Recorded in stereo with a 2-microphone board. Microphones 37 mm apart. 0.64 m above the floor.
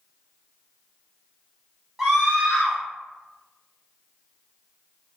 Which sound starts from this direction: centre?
A scream, at 2.0 s.